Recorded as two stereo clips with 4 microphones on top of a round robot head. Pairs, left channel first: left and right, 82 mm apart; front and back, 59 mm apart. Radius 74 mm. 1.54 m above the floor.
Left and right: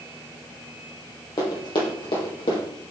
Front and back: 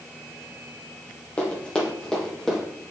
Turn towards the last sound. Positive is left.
turn(degrees=90)